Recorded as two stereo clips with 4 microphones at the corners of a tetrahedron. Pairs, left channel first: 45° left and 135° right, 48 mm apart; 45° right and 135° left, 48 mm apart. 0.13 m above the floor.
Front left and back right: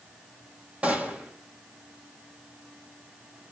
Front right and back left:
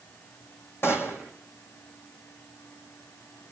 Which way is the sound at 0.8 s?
75° right.